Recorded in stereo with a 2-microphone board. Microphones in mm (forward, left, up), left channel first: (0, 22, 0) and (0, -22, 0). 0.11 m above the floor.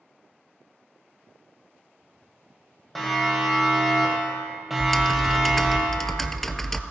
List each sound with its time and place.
3.0 s a siren: 5° left (ahead or behind), 4 m; by 5.8 s 15° right (ahead or behind), 2.5 m
4.8 s typing on a keyboard: 5° left (ahead or behind), 0.5 m